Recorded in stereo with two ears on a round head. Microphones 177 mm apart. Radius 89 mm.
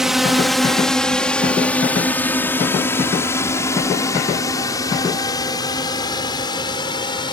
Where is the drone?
Centre (ahead or behind); by 7.3 s 25° left (ahead or behind).